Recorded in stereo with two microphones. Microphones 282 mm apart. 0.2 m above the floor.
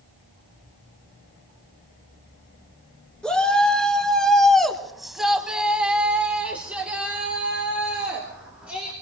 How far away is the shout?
About 3 m.